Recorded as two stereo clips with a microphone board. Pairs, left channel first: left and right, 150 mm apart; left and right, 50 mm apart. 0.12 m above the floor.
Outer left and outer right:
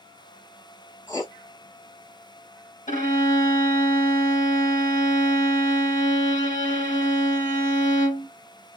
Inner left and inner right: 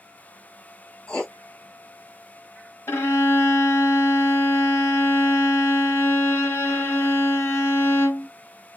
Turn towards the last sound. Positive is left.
turn(degrees=60)  # may be behind; listen again after turning